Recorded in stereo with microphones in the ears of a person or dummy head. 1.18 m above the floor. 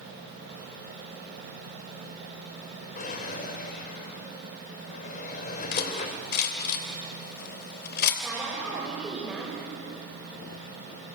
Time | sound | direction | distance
3.0 | a drawer | 45° left (ahead or behind) | 2 m
5.7 | cutlery clinking | 65° left (ahead or behind) | 3 m
8.2 | a woman speaking | centre (ahead or behind) | 5.5 m